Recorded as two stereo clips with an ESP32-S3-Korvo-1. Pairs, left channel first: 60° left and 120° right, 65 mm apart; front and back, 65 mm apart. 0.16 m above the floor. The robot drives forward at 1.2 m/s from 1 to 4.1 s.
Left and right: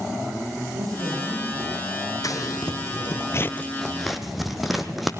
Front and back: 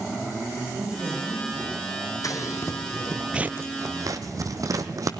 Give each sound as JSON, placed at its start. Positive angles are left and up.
{"t": 0.7, "sound": "a man speaking", "azimuth_deg": -105, "distance_m": 7.5}
{"t": 2.2, "sound": "scissors", "azimuth_deg": 30, "distance_m": 1.3}